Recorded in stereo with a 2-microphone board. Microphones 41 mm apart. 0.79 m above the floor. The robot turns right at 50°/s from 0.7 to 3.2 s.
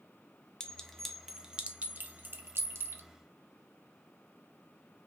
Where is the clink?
15° left (ahead or behind), 0.6 m; by 3.0 s 65° right (ahead or behind), 0.6 m.